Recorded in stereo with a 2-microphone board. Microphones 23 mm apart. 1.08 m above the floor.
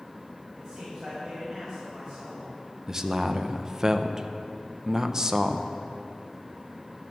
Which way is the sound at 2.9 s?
25° right (ahead or behind).